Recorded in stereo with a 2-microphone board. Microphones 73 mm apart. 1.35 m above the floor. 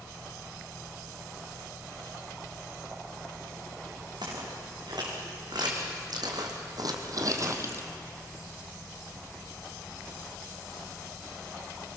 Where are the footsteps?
70° right (ahead or behind), 6.5 m; by 7.8 s 35° right (ahead or behind), 2 m.